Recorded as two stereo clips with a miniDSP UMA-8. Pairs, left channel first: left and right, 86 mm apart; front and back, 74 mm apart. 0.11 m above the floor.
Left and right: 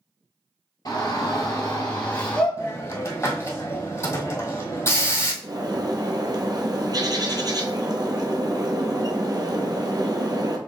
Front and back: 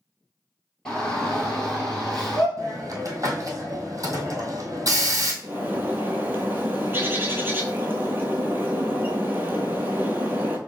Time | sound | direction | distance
0.8 | a shout | 75° left | 2 m
2.6 | a hiss | 140° left | 1.4 m
5.4 | a bird | 120° right | 0.9 m